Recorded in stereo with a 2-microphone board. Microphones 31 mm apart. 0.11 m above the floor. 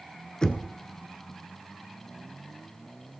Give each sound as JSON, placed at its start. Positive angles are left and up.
{"t": 0.4, "sound": "knocking", "side_deg": 25, "distance_m": 0.8}